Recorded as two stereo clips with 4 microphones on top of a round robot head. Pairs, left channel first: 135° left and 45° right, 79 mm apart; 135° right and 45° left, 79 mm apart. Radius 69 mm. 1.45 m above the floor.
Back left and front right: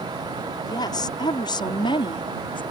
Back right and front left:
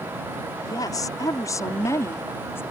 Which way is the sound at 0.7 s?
Straight behind.